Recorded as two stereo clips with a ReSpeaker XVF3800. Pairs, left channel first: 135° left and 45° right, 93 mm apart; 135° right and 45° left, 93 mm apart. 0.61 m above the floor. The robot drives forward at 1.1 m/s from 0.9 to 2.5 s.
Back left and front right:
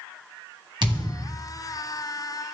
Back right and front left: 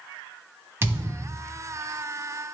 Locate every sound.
0.8 s a thud: 15° right, 1.3 m; by 1.4 s 30° right, 0.8 m